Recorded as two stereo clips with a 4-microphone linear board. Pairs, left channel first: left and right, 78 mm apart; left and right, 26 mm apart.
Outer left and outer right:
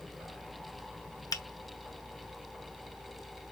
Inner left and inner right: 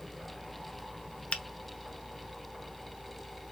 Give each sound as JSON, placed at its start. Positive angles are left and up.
{"t": 1.3, "sound": "a finger snap", "side_deg": 50, "distance_m": 0.9}